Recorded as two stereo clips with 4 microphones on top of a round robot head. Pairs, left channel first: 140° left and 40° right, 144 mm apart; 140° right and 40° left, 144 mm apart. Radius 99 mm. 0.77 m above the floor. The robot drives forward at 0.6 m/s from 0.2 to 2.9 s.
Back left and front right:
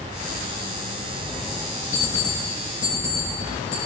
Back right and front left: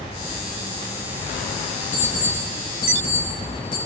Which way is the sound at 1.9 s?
175° right.